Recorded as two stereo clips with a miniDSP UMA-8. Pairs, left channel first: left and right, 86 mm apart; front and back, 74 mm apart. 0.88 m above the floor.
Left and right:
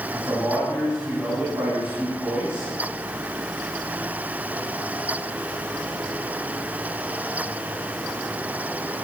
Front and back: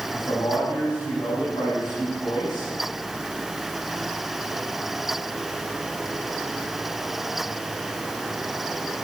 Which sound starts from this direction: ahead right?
A man speaking, at 0.1 s.